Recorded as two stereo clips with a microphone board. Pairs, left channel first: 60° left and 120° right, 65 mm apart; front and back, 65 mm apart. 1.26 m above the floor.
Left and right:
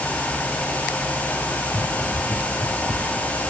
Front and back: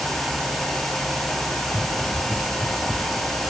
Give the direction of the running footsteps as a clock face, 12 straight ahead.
9 o'clock.